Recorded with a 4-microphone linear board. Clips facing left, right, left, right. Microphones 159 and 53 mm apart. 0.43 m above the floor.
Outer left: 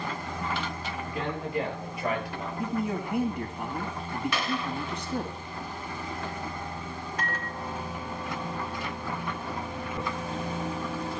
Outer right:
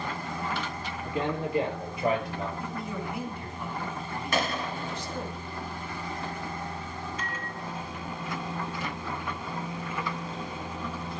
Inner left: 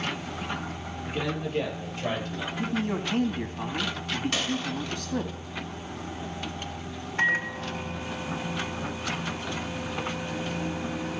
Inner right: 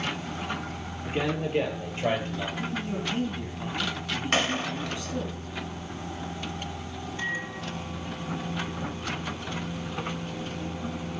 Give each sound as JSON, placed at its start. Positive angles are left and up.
{"t": 1.0, "sound": "a man speaking", "side_deg": -20, "distance_m": 7.5}
{"t": 2.6, "sound": "a man speaking", "side_deg": 65, "distance_m": 3.0}
{"t": 4.3, "sound": "a gunshot", "side_deg": -45, "distance_m": 1.1}
{"t": 7.2, "sound": "a microwave", "side_deg": 70, "distance_m": 1.7}